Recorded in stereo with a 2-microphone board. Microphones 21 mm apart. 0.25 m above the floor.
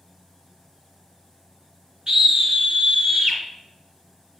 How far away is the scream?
About 3 m.